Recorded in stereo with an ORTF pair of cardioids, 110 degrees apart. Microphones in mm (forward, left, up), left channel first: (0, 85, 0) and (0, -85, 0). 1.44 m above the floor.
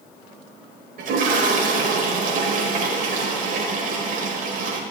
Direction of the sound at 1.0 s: 55° right.